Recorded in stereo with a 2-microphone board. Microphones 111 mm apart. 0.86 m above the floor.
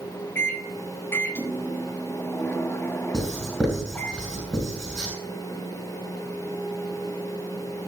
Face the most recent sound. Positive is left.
turn(degrees=10)  # may be behind; listen again after turning